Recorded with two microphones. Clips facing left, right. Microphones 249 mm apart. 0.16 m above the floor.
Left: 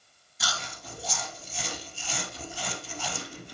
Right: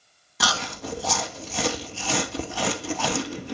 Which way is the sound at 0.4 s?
80° right.